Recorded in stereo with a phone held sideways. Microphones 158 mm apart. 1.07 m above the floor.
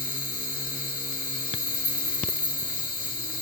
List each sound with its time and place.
0.0 s an insect: 65° left (ahead or behind), 0.9 m